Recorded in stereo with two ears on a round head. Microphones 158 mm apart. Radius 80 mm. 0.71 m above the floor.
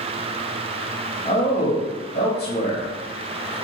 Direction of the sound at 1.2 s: 35° left (ahead or behind).